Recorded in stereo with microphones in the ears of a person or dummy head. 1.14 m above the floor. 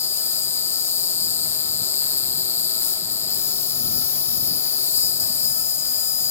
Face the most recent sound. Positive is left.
turn(degrees=15)  # may be behind; listen again after turning